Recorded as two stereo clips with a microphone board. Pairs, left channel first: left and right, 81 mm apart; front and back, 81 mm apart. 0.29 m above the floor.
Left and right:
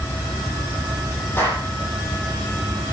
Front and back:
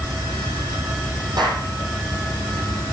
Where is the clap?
150° left, 10 m.